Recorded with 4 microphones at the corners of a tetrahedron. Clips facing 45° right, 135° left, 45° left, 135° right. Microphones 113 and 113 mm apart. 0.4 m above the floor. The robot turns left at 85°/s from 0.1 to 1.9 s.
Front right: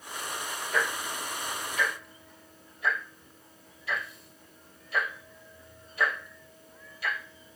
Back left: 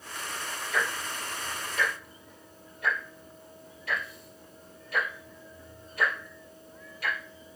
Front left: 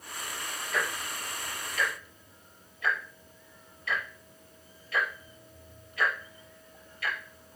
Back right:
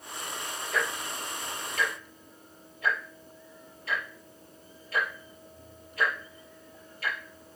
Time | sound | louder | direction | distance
0.7 | ticking | front right 1 dB, back right 1 dB | 90° right | 5 m